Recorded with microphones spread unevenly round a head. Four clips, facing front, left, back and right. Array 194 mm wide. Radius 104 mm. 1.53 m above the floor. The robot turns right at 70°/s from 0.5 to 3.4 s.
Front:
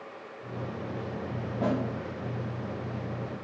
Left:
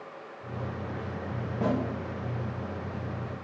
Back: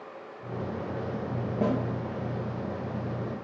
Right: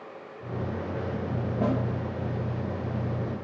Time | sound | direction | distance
1.6 | a snare drum | 165° left | 1.6 m